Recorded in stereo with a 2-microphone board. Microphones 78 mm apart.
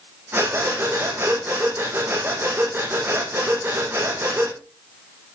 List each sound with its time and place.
0.3 s breathing: 25° right (ahead or behind), 4.5 m